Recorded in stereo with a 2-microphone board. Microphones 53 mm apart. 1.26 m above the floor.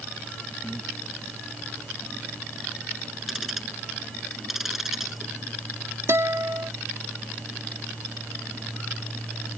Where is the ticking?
5° right (ahead or behind).